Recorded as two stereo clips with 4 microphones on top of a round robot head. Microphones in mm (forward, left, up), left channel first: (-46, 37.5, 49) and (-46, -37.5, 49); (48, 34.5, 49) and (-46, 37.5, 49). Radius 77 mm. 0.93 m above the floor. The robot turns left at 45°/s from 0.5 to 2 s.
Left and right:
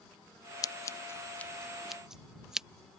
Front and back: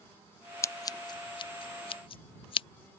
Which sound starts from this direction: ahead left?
Scissors, at 0.6 s.